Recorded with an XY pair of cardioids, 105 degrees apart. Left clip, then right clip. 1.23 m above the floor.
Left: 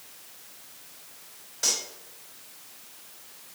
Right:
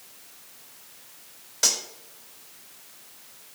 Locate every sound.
1.6 s cutlery clinking: 60° right, 3 m